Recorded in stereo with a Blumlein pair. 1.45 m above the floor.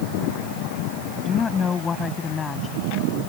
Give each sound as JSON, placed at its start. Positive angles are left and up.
{"t": 1.2, "sound": "a woman speaking", "azimuth_deg": 20}